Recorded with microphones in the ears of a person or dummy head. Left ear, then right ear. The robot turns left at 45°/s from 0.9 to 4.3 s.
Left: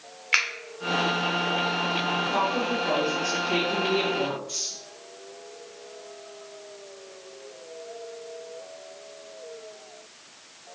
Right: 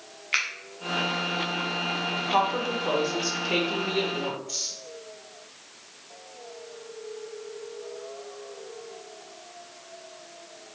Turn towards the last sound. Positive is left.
turn(degrees=170)